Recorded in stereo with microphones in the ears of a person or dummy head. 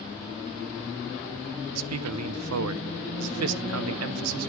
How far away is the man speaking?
About 0.8 m.